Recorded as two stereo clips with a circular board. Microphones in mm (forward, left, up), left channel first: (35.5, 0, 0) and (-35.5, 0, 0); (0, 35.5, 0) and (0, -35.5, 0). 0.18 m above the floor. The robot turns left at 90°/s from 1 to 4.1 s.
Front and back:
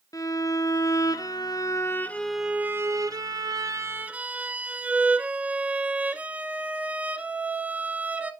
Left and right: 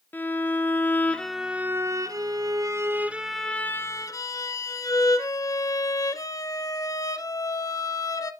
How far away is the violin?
About 0.7 m.